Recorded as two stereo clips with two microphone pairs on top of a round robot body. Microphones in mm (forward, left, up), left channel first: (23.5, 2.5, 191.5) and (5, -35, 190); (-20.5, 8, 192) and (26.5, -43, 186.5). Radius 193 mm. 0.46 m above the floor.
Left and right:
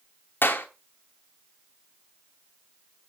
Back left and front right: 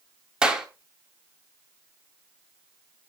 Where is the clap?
30° left, 2.5 m.